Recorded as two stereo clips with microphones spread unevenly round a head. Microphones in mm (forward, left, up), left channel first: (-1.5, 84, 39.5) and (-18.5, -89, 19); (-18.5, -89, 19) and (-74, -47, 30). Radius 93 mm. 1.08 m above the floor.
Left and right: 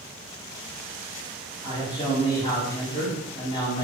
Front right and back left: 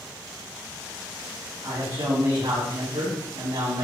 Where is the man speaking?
145° left, 8 m.